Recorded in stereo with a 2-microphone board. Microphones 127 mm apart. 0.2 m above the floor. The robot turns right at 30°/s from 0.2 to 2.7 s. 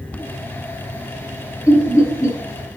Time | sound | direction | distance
1.7 | laughter | 25° left (ahead or behind) | 1.3 m